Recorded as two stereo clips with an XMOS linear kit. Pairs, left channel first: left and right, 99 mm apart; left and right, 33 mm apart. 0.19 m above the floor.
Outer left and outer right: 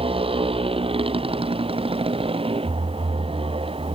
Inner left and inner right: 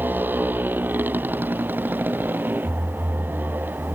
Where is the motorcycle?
85° right; by 4.0 s 90° right.